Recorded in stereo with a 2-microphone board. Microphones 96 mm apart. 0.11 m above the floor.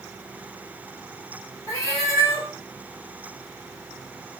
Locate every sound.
1.7 s a cat meowing: 35° left (ahead or behind), 1.2 m